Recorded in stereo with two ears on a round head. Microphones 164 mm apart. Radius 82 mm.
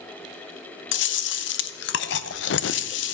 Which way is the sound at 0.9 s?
70° left (ahead or behind).